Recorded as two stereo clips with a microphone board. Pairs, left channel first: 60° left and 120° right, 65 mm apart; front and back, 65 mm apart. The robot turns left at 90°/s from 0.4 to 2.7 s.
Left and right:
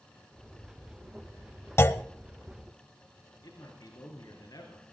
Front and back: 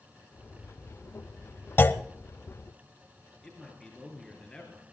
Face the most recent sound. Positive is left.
turn(degrees=80)